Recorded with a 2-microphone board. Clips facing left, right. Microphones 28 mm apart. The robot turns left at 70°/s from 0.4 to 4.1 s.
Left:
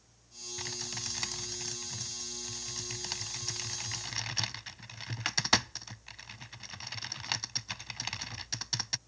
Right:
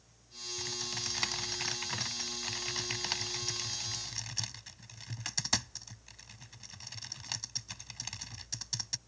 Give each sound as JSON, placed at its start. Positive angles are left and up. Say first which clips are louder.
{"t": 0.6, "sound": "typing on a keyboard", "louder": "right 1 dB", "side_deg": 20}